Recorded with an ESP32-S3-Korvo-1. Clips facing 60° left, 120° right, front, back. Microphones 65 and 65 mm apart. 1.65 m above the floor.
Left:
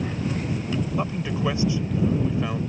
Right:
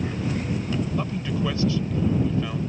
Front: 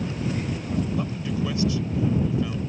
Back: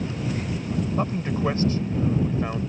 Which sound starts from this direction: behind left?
A man speaking, at 1.0 s.